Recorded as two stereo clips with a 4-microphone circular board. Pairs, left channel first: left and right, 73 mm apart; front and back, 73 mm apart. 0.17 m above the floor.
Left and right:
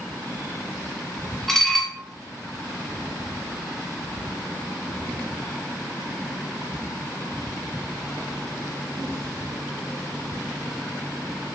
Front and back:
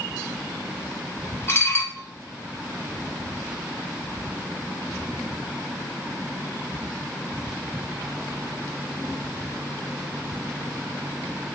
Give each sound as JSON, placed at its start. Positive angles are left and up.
{"t": 1.5, "sound": "dishes clattering", "azimuth_deg": 0, "distance_m": 1.0}